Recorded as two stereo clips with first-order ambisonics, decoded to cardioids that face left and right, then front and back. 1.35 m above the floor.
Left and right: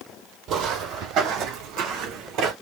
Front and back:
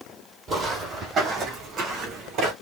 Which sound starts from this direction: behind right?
Footsteps, at 0.5 s.